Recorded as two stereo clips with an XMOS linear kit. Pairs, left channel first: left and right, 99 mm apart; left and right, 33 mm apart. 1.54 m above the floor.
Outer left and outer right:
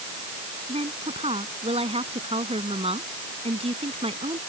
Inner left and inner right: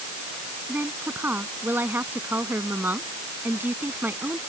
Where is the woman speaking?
90° right.